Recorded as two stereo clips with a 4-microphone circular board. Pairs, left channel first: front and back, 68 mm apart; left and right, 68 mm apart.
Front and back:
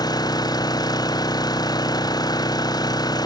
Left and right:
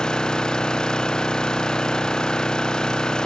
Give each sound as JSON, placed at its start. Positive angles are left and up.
{"t": 0.0, "sound": "an engine running", "azimuth_deg": 10}